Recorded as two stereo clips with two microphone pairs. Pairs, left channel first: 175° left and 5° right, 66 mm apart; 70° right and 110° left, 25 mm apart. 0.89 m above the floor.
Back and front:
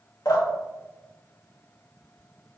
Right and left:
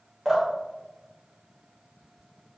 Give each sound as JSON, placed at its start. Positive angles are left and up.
{"t": 0.2, "sound": "dripping", "azimuth_deg": -165, "distance_m": 2.0}